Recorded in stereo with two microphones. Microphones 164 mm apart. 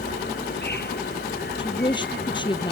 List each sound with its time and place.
0.0 s an insect: 80° left
1.6 s a woman speaking: 30° left (ahead or behind)